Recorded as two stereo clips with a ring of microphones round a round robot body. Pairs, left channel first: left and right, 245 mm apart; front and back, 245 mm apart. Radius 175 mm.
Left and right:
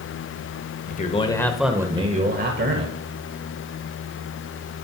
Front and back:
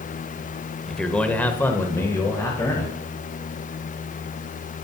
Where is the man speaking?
85° left, 1.4 m; by 3.0 s 75° right, 1.8 m.